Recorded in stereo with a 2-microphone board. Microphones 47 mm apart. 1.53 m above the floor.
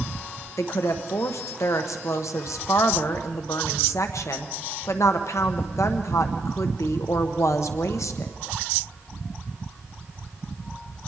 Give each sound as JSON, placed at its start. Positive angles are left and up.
{"t": 0.6, "sound": "a woman speaking", "side_deg": 80, "distance_m": 1.2}